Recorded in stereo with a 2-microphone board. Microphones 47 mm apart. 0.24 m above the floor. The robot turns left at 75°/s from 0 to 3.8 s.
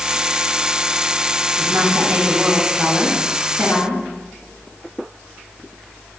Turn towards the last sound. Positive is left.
turn(degrees=110)